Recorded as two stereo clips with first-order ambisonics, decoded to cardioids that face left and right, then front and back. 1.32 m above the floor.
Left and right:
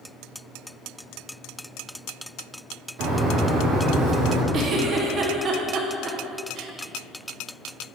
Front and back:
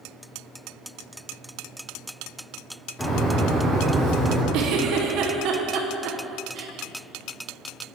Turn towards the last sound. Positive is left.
turn(degrees=-145)